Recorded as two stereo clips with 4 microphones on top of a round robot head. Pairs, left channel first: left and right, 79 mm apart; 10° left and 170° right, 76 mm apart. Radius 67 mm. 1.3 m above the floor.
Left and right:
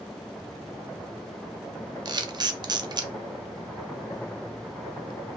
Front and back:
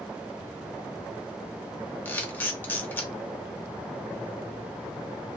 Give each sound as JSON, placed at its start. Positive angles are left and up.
{"t": 2.0, "sound": "a camera shutter", "azimuth_deg": -60, "distance_m": 0.5}